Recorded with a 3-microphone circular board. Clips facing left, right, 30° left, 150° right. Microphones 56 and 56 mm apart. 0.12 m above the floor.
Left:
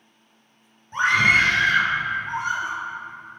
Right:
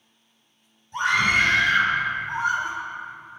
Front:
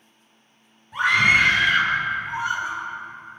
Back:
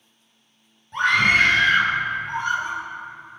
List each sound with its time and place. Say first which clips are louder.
0.9 s a scream: left 3 dB, even; 115° left, 1.7 m; by 2.8 s 105° left, 3 m